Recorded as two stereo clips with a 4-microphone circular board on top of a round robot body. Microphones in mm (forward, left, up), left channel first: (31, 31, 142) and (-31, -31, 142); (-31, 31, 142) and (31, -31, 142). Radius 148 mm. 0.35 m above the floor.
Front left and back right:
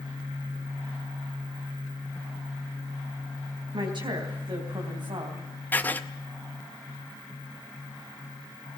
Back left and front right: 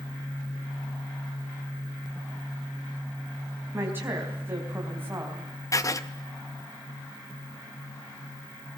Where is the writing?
105° left, 1.9 m.